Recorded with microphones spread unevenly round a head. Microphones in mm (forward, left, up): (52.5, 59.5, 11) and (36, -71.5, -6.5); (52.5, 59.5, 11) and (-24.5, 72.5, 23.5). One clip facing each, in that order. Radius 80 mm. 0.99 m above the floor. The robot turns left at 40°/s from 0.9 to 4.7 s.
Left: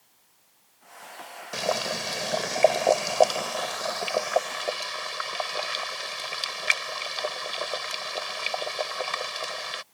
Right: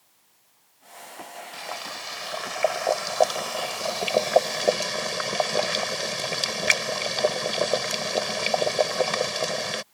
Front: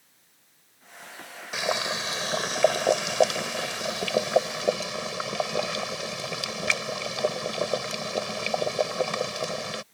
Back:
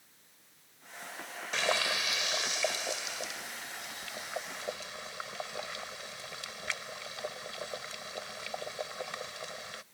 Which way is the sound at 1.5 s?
75° left.